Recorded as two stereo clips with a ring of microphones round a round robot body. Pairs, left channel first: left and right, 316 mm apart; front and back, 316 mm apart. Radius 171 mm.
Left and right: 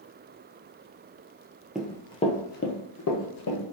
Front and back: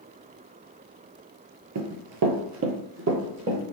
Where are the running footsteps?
175° right, 0.6 m; by 3.6 s 125° left, 1.2 m.